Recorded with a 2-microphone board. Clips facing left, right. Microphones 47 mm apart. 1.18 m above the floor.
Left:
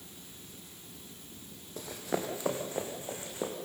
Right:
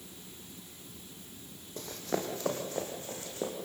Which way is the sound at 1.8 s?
10° left (ahead or behind).